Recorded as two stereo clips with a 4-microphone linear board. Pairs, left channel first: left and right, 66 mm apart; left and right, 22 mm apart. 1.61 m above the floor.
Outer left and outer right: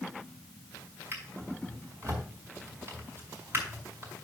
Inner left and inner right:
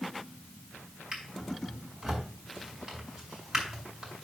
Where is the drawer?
35° right (ahead or behind), 5 m.